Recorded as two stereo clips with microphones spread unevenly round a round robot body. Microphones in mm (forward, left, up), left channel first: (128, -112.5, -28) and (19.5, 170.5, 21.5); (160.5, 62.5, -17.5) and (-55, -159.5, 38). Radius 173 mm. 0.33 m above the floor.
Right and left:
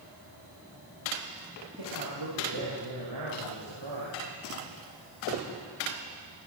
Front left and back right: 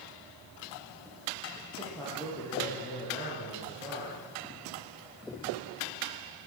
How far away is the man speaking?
About 9.5 m.